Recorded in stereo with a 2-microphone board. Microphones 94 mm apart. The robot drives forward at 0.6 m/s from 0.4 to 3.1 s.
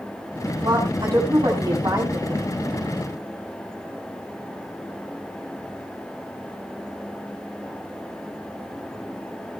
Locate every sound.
0.6 s a woman speaking: 30° right (ahead or behind), 7 m; by 2.4 s 25° right (ahead or behind), 8 m